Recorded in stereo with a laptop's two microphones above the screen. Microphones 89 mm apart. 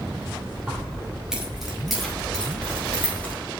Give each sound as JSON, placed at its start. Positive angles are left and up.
{"t": 0.7, "sound": "keys jangling", "side_deg": -20, "distance_m": 1.9}